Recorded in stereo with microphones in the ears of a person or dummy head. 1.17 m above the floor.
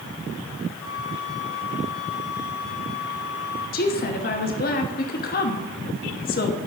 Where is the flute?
70° left (ahead or behind), 1.9 m.